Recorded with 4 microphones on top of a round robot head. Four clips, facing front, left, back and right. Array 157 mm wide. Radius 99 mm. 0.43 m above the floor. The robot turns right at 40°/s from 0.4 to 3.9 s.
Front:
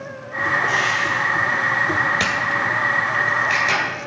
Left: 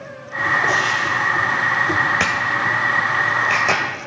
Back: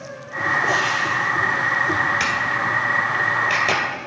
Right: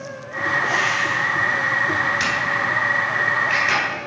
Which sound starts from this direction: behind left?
Frying, at 0.7 s.